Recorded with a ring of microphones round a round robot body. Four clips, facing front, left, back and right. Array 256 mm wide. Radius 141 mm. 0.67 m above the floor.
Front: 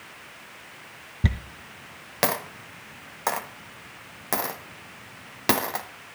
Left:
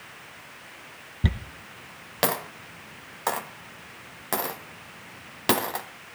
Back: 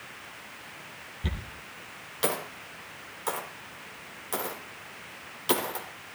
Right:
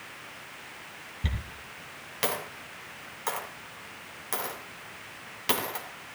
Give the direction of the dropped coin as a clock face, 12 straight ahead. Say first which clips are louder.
Left 8 dB, front 8 dB; 11 o'clock.